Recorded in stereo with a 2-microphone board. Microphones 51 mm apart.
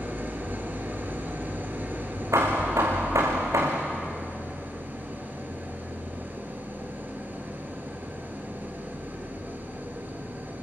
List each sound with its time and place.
0.0 s an engine running: 40° right (ahead or behind), 3.5 m
2.3 s hammering: 85° right, 5 m